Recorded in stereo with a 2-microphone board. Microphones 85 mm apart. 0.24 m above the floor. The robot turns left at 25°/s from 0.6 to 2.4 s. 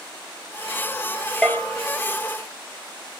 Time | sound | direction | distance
1.4 | a bell | 5° left (ahead or behind) | 1.2 m